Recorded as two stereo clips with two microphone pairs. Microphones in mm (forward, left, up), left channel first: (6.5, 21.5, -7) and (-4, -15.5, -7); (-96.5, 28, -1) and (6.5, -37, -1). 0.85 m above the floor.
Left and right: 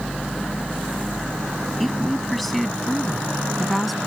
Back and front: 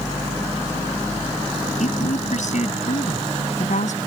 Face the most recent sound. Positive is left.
turn(degrees=160)